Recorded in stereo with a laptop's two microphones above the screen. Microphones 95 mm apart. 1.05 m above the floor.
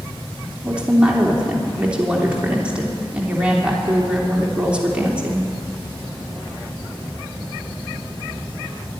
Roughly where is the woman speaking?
Centre.